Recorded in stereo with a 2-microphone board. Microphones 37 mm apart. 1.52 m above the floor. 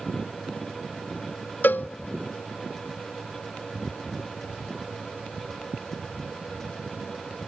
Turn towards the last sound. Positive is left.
turn(degrees=55)  # may be behind; listen again after turning